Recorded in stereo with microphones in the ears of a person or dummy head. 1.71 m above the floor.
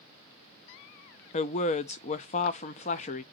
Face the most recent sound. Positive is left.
turn(degrees=35)  # may be behind; listen again after turning